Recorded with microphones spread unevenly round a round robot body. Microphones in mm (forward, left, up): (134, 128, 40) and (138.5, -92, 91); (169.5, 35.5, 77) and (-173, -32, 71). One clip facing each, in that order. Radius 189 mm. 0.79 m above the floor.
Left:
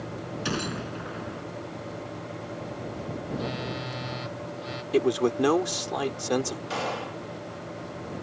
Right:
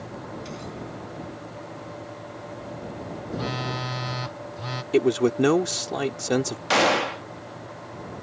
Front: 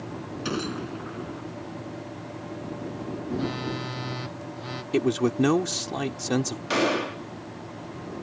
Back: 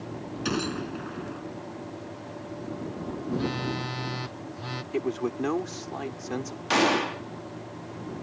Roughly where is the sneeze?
No sneeze in this recording.